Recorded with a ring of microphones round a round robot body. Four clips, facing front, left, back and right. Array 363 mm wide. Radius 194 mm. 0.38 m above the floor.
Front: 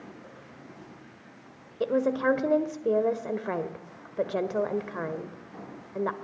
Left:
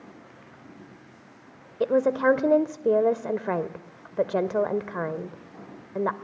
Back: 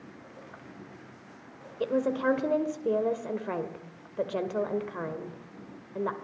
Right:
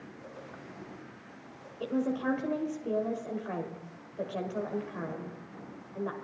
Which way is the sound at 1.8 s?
80° left.